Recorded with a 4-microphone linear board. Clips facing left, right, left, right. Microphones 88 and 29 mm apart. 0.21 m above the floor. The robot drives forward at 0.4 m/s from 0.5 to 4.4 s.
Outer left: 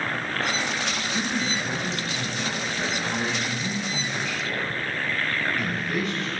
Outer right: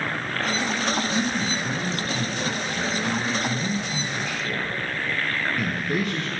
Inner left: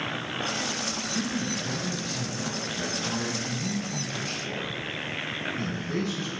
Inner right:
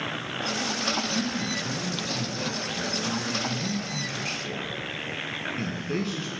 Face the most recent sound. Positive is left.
turn(degrees=-50)  # may be behind; listen again after turning